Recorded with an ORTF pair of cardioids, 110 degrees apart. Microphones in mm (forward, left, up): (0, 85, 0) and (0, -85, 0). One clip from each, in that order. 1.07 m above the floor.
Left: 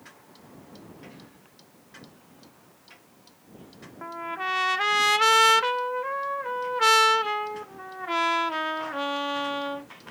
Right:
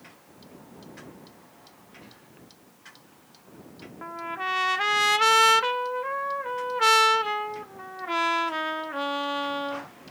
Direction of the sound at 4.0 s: 5° left.